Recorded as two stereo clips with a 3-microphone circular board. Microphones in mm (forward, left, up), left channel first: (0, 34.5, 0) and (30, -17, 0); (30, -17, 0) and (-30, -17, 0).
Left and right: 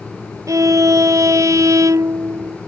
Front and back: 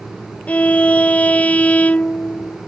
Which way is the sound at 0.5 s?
65° right.